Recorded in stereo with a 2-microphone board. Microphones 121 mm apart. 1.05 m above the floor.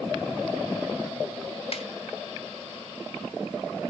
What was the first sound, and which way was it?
A snare drum, 55° left (ahead or behind).